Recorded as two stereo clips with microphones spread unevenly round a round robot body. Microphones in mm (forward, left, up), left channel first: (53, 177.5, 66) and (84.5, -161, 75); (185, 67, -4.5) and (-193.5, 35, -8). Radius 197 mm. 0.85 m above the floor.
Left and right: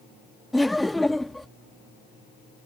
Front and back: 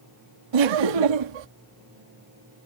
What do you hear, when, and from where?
0.5 s laughter: 175° right